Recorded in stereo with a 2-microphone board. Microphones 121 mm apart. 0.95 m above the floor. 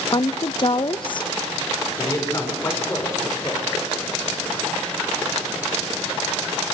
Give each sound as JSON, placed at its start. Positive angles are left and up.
{"t": 0.1, "sound": "a woman speaking", "side_deg": 40, "distance_m": 0.7}
{"t": 2.0, "sound": "a man speaking", "side_deg": 25, "distance_m": 4.0}